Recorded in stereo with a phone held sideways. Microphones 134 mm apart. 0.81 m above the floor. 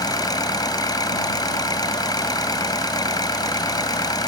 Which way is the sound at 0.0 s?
30° left (ahead or behind).